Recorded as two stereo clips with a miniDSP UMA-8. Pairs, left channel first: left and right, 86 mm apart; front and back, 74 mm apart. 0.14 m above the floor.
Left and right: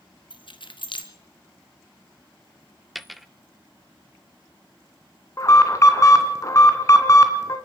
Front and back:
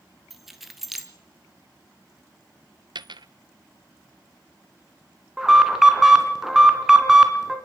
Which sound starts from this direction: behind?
A dropped coin, at 3.0 s.